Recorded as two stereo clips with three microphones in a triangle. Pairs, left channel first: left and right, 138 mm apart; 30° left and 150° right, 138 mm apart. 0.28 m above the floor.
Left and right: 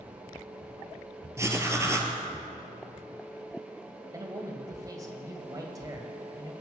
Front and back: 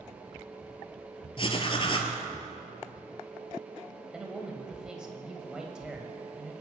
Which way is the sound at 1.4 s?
20° right.